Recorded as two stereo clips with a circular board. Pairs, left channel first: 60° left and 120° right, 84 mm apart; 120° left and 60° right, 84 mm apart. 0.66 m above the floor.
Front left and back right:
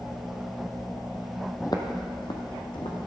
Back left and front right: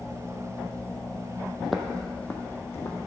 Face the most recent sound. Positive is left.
turn(degrees=70)